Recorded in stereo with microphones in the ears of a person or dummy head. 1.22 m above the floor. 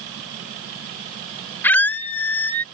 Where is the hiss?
I don't hear a hiss.